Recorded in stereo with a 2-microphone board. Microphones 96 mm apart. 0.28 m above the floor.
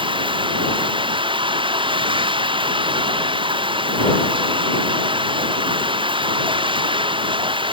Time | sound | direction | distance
0.0 | running water | 60° right (ahead or behind) | ?